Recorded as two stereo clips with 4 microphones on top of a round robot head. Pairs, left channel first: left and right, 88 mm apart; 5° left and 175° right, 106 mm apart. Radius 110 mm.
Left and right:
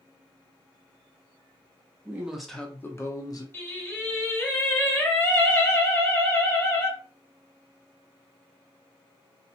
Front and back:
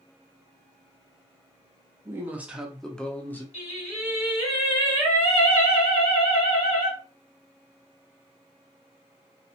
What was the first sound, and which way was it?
A woman speaking, 135° right.